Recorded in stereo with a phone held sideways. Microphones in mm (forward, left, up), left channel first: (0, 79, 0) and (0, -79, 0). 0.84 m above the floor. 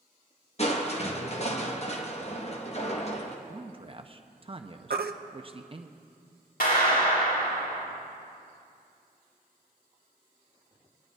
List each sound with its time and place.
0.6 s crushing: 40° left (ahead or behind), 1.0 m
3.5 s a man speaking: 35° right (ahead or behind), 0.5 m
4.9 s a baby crying: 75° right (ahead or behind), 0.6 m
6.6 s a clap: 80° left, 3.5 m